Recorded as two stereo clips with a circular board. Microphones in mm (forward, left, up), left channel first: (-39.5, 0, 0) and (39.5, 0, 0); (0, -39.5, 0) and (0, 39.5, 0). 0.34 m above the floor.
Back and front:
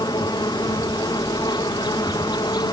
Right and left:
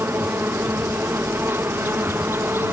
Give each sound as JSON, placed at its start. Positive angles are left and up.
{"t": 0.0, "sound": "an insect", "azimuth_deg": 150}